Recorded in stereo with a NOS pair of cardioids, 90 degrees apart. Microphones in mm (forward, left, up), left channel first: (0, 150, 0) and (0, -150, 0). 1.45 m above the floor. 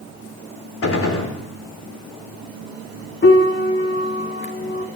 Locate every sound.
0.8 s a gunshot: 45° left, 5 m
3.2 s a piano: 35° left, 3 m